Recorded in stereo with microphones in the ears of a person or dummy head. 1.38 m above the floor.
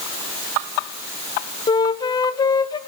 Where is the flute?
20° left (ahead or behind), 0.8 m.